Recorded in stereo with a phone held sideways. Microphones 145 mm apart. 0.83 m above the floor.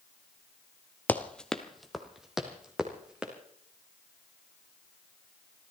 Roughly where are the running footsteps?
Centre.